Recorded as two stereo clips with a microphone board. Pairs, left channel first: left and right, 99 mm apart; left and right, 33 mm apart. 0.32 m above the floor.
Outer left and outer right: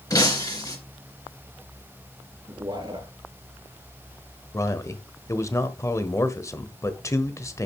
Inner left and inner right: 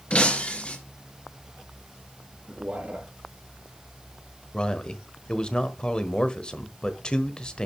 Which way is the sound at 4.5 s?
30° left (ahead or behind).